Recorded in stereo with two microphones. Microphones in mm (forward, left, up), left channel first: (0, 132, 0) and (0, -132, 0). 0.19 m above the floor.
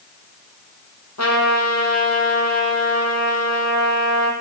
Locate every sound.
1.2 s a trumpet: 80° left, 3 m